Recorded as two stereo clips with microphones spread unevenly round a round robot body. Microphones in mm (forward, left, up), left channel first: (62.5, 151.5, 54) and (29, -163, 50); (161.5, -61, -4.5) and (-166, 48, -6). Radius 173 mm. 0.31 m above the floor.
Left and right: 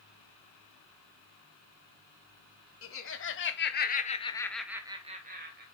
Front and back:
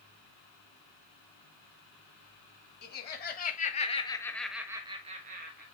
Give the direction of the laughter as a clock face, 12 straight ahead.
11 o'clock.